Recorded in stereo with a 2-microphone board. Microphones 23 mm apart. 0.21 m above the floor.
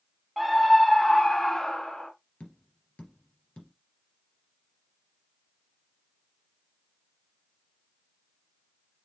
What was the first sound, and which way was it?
A scream, 10° left (ahead or behind).